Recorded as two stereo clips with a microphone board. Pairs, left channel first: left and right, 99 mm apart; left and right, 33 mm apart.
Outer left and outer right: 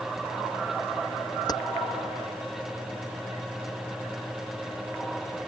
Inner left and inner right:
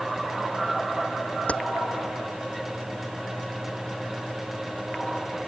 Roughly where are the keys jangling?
Left.